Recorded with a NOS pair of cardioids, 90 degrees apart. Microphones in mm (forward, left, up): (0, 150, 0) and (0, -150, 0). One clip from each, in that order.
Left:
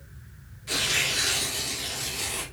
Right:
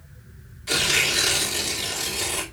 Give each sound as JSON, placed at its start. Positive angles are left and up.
{"t": 0.7, "sound": "tearing paper", "azimuth_deg": -40, "distance_m": 3.0}